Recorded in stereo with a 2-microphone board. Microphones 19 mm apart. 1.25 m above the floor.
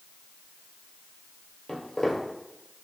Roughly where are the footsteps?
Left.